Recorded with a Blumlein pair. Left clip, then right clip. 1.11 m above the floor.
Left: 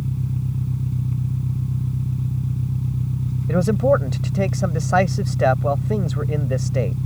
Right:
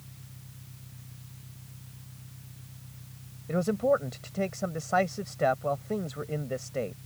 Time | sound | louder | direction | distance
0.0 | an engine running | left 22 dB | 40° left | ?
3.5 | a man speaking | left 8 dB | 70° left | ?